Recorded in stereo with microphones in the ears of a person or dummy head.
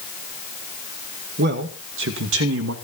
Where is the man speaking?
50° right (ahead or behind), 2 m; by 2.8 s 70° right (ahead or behind), 3 m.